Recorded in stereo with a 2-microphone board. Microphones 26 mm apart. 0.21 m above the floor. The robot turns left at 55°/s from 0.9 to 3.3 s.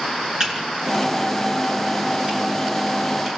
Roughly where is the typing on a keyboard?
Right.